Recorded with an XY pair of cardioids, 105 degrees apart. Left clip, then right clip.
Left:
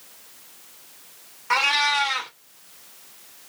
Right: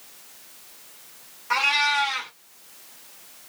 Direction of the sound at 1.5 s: 40° left.